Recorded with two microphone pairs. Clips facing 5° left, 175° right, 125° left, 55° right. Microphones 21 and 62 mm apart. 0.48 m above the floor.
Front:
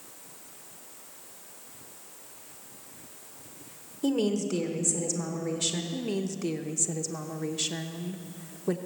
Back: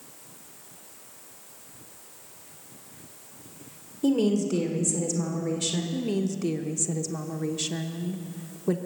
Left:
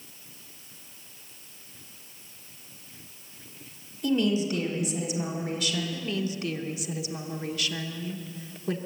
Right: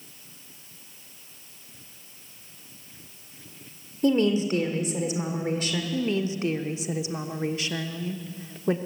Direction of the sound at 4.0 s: 80° right.